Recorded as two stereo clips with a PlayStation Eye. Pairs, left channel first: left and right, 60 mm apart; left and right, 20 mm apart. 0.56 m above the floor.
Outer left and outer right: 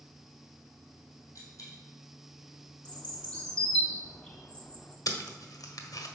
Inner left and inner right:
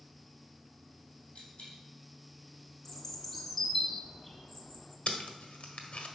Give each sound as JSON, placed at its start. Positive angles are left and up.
{"t": 1.4, "sound": "a dropped coin", "side_deg": 50, "distance_m": 4.0}
{"t": 2.9, "sound": "a bird", "side_deg": 15, "distance_m": 1.1}
{"t": 5.1, "sound": "tape being pulled", "side_deg": 65, "distance_m": 1.2}